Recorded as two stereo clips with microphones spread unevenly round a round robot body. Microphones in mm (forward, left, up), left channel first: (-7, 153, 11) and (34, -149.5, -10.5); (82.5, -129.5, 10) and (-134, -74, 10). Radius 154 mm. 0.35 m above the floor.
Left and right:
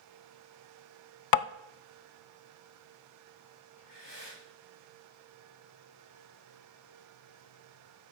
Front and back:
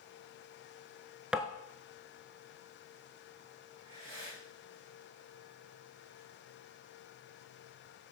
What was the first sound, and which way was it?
Tapping, 80° left.